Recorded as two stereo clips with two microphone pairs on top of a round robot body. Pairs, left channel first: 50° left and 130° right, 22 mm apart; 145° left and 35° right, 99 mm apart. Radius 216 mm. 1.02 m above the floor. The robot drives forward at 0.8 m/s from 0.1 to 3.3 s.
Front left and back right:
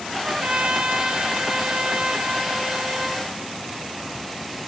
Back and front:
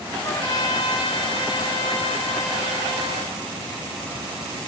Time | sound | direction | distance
0.2 | a trumpet | 160° right | 0.6 m